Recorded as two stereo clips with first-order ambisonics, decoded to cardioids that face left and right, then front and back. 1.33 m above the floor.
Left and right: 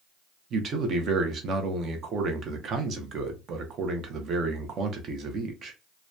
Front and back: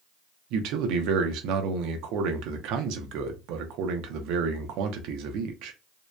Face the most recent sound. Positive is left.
turn(degrees=-150)